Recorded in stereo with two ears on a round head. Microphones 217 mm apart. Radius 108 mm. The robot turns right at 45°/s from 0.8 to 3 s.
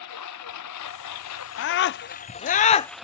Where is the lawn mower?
80° left; by 3.0 s straight behind.